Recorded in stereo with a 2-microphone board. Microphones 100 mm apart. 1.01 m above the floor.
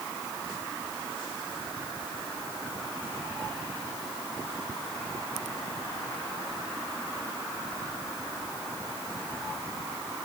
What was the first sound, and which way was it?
Only background noise.